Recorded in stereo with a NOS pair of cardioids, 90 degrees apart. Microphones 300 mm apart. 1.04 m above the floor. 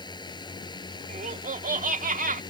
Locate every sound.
0.0 s a drone: 15° left
1.1 s laughter: 25° right